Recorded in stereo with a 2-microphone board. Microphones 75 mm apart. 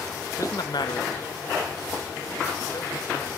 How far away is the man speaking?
About 0.8 m.